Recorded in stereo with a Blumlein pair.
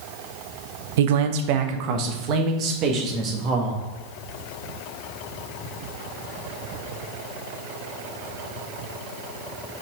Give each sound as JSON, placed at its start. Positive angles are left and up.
{"t": 1.0, "sound": "a man speaking", "azimuth_deg": -55, "distance_m": 0.7}